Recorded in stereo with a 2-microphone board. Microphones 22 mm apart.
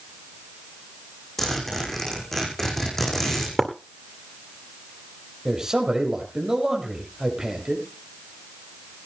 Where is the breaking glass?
5° left (ahead or behind), 2 m.